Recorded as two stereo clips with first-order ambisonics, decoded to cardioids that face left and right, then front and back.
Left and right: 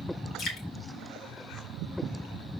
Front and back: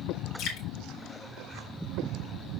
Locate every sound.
0.4 s dripping: 35° left, 2.5 m